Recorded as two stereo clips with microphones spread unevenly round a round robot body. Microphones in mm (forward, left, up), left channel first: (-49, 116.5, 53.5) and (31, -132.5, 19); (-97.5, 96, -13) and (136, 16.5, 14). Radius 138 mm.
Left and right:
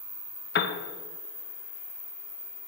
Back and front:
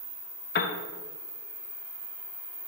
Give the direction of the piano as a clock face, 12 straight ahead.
7 o'clock.